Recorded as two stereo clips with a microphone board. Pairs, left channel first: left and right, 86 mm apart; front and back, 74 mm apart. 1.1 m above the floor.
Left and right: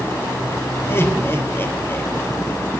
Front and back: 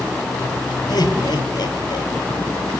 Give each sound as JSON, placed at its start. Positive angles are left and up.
{"t": 0.9, "sound": "laughter", "azimuth_deg": 30, "distance_m": 5.0}